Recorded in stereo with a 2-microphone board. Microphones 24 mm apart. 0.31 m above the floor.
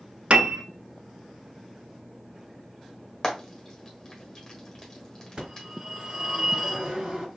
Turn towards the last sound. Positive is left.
turn(degrees=-50)  # may be behind; listen again after turning